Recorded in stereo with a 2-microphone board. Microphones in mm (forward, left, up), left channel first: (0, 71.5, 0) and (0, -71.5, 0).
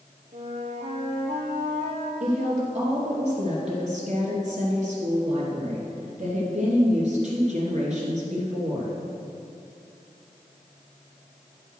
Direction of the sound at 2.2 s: 50° right (ahead or behind).